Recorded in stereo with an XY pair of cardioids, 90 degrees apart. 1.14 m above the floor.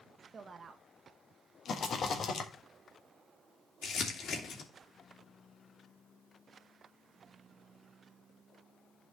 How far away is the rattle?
About 1.5 m.